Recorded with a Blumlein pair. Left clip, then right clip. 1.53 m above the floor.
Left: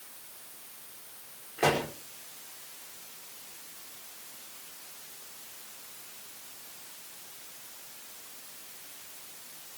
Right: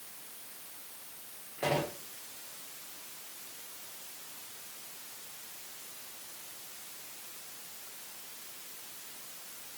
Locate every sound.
1.6 s a pop: 70° left, 5 m